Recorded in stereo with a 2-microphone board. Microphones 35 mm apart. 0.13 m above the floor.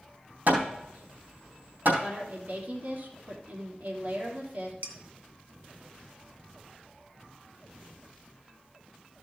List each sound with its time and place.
0.5 s hammering: 60° right (ahead or behind), 3.5 m
2.0 s a woman speaking: 65° right (ahead or behind), 3 m
4.8 s dishes clattering: 50° right (ahead or behind), 1.1 m